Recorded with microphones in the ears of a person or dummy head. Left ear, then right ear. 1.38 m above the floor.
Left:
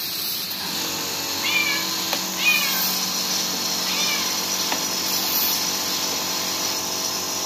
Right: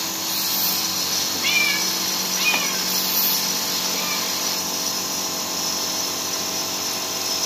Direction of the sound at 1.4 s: 10° right (ahead or behind).